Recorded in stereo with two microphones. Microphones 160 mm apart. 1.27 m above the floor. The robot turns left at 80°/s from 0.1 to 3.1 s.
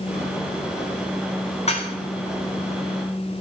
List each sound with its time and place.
1.7 s dishes clattering: 45° left (ahead or behind), 2 m; by 1.9 s 25° left (ahead or behind), 2 m